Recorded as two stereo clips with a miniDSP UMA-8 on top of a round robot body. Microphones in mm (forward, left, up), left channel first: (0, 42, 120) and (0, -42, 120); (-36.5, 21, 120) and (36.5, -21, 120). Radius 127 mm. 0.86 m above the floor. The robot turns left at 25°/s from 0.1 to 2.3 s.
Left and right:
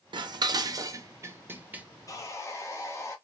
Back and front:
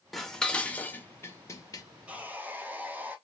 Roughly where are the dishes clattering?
Behind right.